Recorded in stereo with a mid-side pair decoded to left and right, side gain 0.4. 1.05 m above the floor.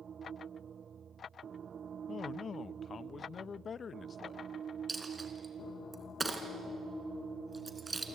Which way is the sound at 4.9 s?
30° right.